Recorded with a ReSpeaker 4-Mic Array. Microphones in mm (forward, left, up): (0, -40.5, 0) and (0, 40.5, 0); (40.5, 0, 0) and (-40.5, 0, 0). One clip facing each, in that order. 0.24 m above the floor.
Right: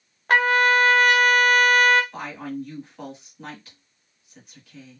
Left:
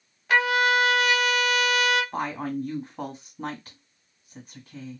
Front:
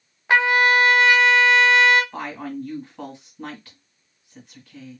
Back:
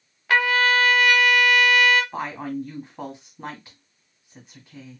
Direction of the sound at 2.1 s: 115° left.